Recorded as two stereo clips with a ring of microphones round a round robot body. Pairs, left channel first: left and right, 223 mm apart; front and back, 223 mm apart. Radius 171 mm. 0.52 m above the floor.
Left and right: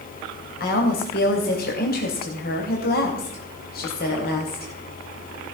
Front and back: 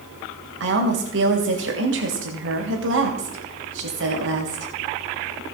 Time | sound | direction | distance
0.6 | a woman speaking | 140° left | 3 m